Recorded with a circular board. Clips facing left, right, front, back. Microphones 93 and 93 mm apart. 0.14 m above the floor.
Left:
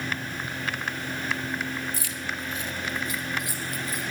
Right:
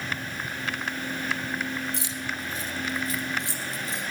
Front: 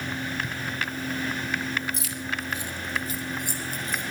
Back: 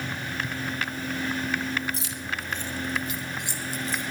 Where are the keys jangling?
145° right, 1.2 m; by 4.0 s 25° right, 2.5 m.